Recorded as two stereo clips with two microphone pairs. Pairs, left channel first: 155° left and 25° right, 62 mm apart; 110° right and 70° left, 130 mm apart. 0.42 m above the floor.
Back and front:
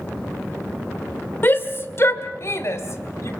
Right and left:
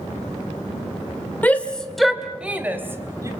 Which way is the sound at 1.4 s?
Straight behind.